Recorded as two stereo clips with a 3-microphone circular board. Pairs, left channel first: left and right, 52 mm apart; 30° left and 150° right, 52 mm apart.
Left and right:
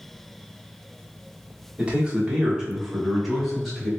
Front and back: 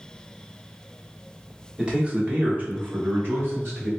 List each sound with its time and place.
1.8 s a man speaking: 100° right, 0.9 m; by 3.9 s 175° left, 1.6 m